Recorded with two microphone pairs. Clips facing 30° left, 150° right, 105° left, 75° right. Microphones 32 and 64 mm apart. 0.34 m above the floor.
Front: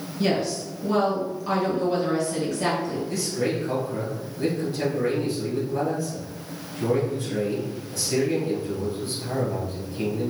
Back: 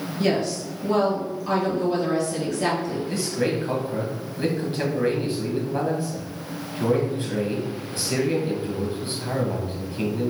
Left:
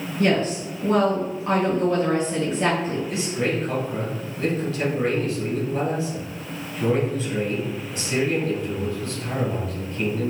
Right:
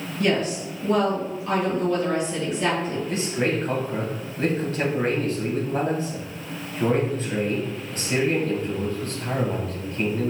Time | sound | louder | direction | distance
0.2 | a woman speaking | back 1 dB, left 2 dB | 115° left | 1.3 m
3.1 | a man speaking | back 3 dB, even | 115° right | 1.6 m